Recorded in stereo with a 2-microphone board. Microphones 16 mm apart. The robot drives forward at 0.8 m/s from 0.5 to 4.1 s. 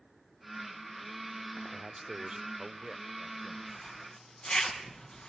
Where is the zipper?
50° left (ahead or behind), 3.5 m.